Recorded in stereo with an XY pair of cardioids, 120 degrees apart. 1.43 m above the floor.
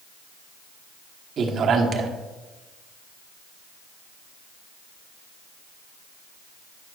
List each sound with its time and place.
1.4 s a man speaking: 50° right, 1.2 m